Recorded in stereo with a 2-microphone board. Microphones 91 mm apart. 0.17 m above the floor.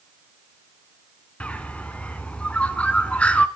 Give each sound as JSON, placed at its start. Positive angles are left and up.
{"t": 1.4, "sound": "a bird", "side_deg": 15, "distance_m": 1.1}